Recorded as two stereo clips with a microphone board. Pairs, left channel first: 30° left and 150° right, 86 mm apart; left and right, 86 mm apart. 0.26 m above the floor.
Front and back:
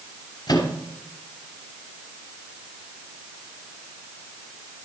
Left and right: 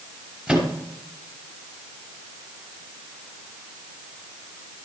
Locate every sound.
0.5 s a microwave: 10° right, 3 m